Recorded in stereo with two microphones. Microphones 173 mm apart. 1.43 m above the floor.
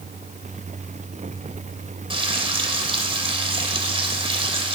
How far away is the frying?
About 3 m.